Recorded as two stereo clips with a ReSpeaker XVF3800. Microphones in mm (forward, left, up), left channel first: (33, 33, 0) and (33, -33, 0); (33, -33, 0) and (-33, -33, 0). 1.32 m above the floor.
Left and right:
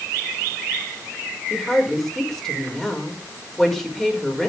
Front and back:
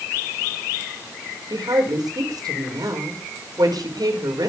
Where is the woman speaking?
175° left, 6 m.